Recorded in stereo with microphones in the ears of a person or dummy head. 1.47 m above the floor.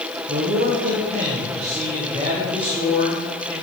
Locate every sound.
0.3 s a man speaking: 55° right (ahead or behind), 1.1 m; by 3.5 s 25° right (ahead or behind), 3 m